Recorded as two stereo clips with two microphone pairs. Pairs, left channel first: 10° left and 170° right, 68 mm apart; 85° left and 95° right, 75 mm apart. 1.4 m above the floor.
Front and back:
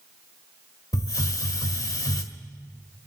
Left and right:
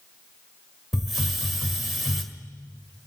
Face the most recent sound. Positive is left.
turn(degrees=-10)